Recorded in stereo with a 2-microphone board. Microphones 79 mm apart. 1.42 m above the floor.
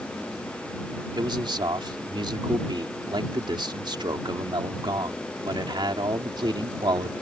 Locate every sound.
1.1 s a man speaking: 65° right (ahead or behind)